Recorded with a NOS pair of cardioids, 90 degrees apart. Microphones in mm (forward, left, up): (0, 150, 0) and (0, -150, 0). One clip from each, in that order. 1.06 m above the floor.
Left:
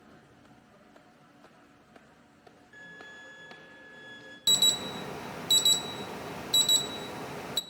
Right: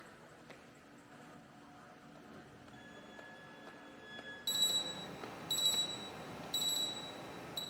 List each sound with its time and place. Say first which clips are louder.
2.7 s a violin: left 9 dB; 55° left, 3 m
4.5 s an alarm: left 10 dB; 65° left, 0.7 m